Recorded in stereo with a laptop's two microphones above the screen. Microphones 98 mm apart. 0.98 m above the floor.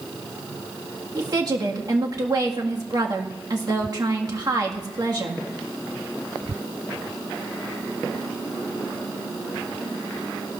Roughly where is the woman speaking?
Right.